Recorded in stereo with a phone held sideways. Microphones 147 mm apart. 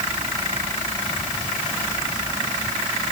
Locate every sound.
Only background noise.